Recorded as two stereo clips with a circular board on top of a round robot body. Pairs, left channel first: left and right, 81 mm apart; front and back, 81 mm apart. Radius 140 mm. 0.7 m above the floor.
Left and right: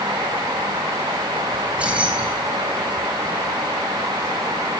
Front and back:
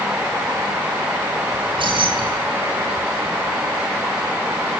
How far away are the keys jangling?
About 6.5 m.